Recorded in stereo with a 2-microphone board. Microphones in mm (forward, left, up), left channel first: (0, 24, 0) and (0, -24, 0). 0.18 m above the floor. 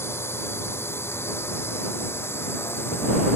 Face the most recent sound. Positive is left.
turn(degrees=55)  # may be behind; listen again after turning